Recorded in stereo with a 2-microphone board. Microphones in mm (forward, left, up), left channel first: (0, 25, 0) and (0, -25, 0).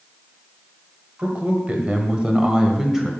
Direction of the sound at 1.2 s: 25° right (ahead or behind).